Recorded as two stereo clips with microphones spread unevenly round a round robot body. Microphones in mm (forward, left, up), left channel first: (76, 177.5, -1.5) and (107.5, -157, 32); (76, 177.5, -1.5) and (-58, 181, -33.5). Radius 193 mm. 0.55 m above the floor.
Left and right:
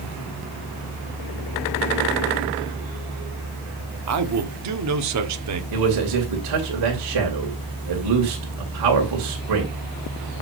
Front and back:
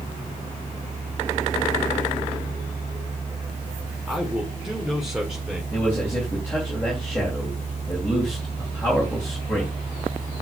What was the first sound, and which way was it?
A man speaking, 110° right.